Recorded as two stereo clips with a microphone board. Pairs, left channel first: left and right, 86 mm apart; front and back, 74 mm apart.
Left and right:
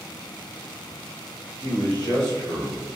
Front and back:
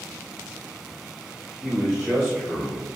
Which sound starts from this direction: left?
A man speaking, at 1.6 s.